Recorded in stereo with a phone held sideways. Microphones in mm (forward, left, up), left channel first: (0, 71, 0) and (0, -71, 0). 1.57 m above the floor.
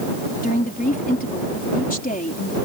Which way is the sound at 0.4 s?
85° left.